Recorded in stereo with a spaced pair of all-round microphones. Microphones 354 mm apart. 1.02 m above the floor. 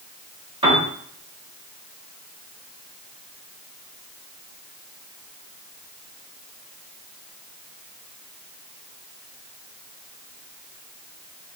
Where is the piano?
15° right (ahead or behind), 0.8 m.